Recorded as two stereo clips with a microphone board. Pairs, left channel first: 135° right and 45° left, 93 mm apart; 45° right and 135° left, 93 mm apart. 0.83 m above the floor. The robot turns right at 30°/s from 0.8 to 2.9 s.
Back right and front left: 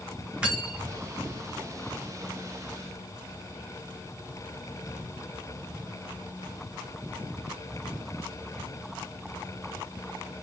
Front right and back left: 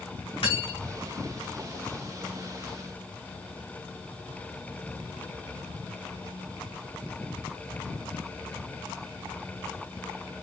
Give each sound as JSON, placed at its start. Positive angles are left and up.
{"t": 0.4, "sound": "cutlery clinking", "azimuth_deg": -35, "distance_m": 2.5}